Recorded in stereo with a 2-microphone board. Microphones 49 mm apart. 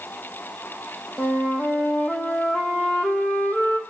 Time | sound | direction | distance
1.2 | a flute | 35° left (ahead or behind) | 0.9 m